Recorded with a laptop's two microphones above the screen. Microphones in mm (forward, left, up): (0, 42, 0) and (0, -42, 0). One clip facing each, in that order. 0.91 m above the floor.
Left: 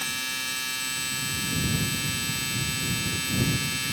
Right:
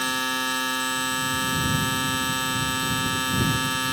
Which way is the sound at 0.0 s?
65° right (ahead or behind).